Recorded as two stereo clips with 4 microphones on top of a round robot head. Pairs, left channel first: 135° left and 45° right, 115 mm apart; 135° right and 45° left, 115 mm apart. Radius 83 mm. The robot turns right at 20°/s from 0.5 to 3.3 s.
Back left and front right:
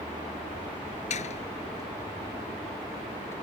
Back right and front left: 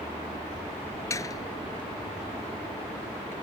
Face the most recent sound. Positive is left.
turn(degrees=-155)